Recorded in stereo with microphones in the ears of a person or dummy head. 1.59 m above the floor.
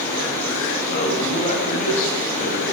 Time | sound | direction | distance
0.9 | a man speaking | 45° left (ahead or behind) | 9.5 m